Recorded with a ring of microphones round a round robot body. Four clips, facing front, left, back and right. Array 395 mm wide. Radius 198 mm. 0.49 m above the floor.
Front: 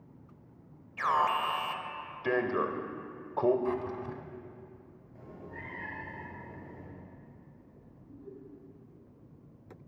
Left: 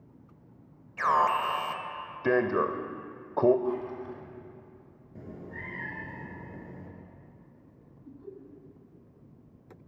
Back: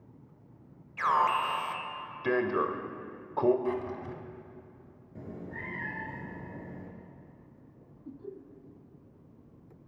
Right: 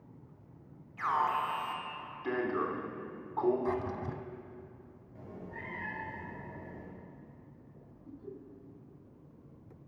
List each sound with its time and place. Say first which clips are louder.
1.0 s an alarm: left 6 dB, back 2 dB; 100° left, 1.3 m
3.6 s a drawer: left 2 dB, even; 75° right, 1.9 m
5.2 s a cat meowing: left 3 dB, back 5 dB; 135° left, 4.5 m
8.1 s laughter: left 1 dB, back 5 dB; 160° left, 4.5 m